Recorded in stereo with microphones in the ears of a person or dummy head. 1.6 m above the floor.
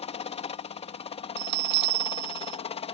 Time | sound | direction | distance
0.0 | a helicopter | 25° left (ahead or behind) | ?
1.4 | a bell | 50° right (ahead or behind) | ?